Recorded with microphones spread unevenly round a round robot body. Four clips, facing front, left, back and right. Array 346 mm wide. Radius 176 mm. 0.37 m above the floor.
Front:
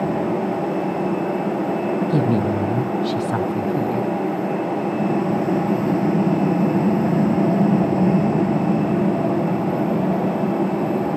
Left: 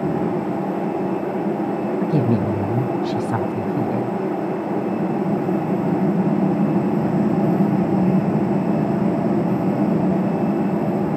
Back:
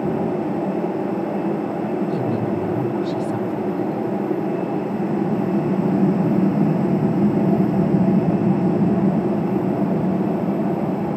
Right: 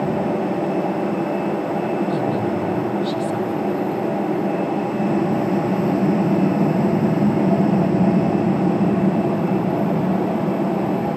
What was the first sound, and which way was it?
A woman speaking, 45° left.